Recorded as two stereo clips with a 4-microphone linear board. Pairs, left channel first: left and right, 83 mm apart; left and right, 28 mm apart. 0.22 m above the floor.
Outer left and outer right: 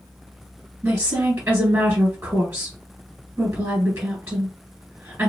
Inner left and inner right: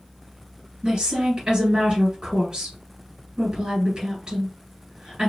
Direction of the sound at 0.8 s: 20° right (ahead or behind).